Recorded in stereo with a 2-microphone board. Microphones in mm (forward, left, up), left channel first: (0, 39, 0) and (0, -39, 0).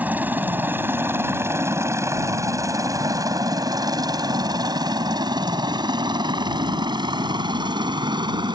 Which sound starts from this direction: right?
A helicopter, at 0.0 s.